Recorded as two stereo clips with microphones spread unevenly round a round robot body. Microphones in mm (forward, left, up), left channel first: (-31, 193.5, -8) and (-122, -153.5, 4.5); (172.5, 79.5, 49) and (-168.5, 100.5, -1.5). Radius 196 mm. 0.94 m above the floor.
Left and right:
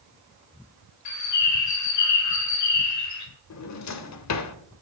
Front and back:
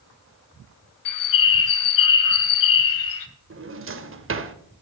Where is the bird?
25° left, 2.5 m.